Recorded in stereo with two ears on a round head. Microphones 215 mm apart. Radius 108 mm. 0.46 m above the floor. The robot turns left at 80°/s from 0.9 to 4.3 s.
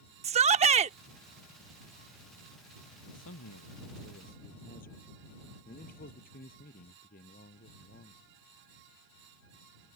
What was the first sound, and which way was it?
A shout, 25° right (ahead or behind).